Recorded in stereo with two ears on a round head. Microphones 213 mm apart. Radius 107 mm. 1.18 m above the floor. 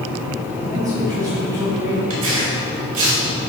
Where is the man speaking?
Centre (ahead or behind), 2.5 m.